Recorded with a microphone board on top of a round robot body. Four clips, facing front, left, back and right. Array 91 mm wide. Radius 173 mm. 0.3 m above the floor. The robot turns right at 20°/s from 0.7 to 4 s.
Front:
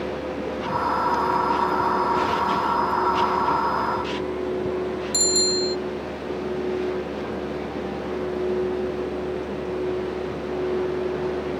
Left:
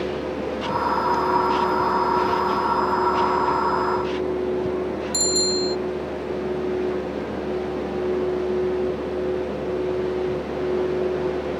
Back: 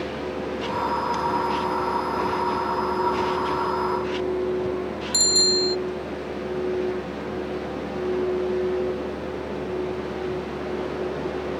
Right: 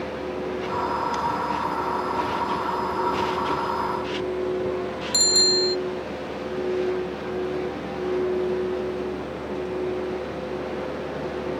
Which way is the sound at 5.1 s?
105° right.